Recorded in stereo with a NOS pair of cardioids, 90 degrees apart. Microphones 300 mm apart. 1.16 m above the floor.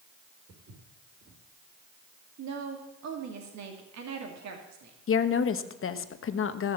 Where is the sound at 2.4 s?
65° right, 2.5 m.